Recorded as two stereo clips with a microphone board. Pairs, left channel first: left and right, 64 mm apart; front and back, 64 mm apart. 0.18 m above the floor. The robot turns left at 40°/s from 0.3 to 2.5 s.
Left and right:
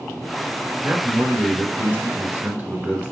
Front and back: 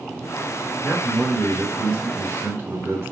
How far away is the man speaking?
About 2 m.